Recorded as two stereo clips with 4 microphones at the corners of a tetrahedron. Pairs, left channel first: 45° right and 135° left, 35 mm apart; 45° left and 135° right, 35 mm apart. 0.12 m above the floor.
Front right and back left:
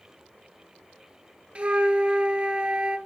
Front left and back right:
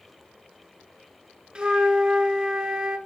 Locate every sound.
1.6 s a flute: 170° left, 0.6 m